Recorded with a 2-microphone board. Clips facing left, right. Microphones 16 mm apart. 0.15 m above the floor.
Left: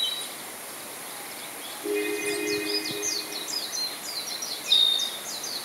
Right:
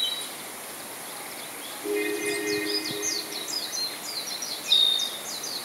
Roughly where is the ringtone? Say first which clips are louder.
Even; centre.